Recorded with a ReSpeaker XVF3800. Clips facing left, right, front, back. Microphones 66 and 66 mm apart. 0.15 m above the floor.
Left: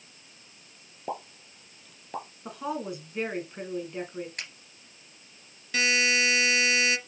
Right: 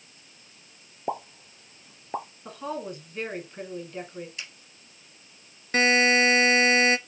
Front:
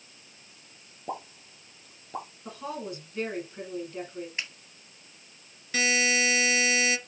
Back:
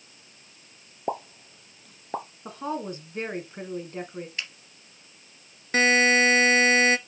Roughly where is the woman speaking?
Behind.